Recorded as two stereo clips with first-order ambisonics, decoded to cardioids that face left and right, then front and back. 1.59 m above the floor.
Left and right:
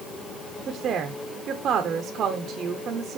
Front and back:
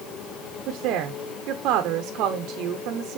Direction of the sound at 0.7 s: 145° right.